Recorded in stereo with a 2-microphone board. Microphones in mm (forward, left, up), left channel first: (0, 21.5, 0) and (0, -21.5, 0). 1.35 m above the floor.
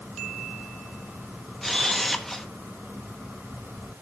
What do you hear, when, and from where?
1.6 s a camera shutter: 5° left (ahead or behind), 0.9 m